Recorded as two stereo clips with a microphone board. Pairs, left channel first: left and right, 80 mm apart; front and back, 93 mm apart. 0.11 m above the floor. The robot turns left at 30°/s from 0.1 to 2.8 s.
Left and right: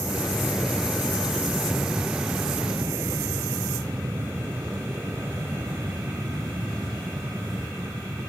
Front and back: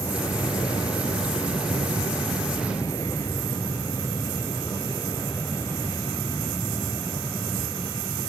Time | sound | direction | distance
0.0 | an aircraft | 40° left | ?